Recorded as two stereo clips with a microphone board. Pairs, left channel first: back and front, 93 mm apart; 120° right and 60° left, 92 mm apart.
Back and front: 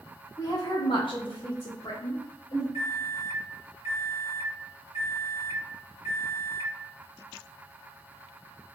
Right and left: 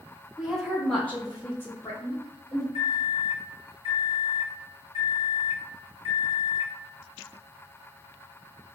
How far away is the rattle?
No rattle in this recording.